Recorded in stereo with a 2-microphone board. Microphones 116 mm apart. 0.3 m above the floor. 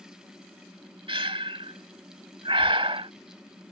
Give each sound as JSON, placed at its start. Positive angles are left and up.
{"t": 1.1, "sound": "breathing", "side_deg": -50}